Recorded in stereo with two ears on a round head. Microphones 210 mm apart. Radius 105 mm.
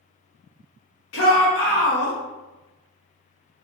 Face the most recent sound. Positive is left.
turn(degrees=60)  # may be behind; listen again after turning